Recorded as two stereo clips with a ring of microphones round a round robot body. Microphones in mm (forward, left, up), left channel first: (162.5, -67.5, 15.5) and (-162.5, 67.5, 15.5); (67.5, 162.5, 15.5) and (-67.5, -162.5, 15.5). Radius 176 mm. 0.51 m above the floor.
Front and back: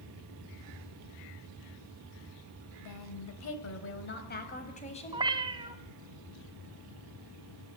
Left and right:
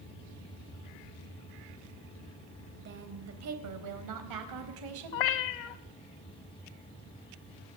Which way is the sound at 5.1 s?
80° left.